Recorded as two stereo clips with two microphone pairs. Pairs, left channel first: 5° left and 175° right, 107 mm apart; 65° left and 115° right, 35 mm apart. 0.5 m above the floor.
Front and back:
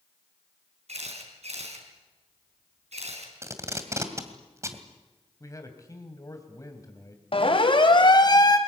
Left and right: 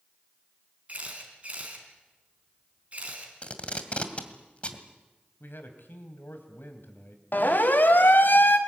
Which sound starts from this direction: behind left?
Tape being pulled, at 3.4 s.